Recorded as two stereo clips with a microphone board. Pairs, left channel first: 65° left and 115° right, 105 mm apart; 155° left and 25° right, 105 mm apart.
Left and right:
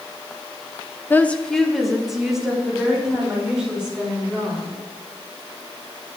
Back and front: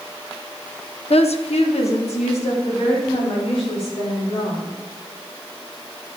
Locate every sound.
1.1 s a woman speaking: 135° left, 0.8 m; by 4.8 s 165° left, 6.5 m